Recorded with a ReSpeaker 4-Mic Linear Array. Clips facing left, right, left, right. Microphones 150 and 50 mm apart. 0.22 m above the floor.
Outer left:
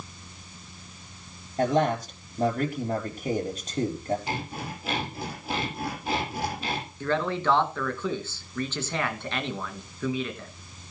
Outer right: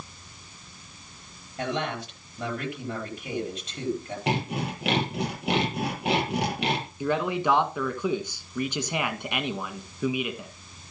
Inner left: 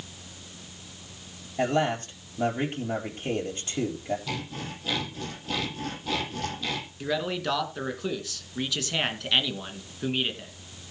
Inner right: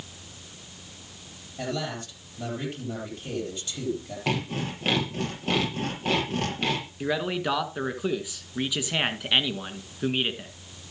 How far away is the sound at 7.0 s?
About 2 m.